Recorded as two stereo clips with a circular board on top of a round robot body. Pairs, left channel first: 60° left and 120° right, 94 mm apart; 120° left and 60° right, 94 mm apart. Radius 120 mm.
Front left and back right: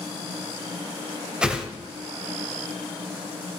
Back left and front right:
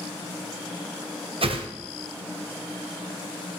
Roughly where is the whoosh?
Ahead right.